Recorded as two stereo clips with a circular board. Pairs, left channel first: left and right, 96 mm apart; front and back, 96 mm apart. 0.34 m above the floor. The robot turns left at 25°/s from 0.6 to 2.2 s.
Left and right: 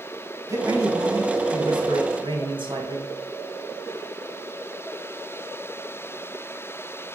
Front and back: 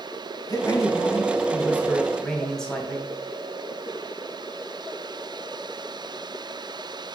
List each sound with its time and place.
0.5 s a man speaking: 45° right, 2 m; by 3.1 s 85° right, 2 m